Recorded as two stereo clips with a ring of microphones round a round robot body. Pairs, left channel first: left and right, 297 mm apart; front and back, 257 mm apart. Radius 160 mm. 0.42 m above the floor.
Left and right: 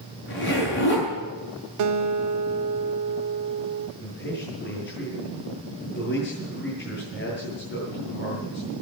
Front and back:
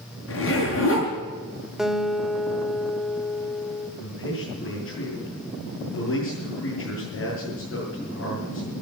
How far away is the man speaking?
About 6.5 m.